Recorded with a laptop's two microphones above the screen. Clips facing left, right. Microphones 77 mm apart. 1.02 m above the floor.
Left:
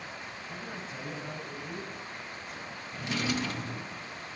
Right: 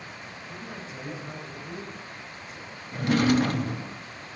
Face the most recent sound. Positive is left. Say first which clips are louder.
# right 11 dB
turn(degrees=-50)  # may be behind; listen again after turning